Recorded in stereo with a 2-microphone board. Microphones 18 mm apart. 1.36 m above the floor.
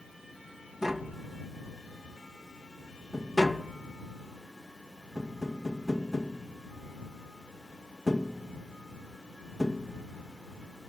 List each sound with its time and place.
0.8 s tapping: 30° right (ahead or behind)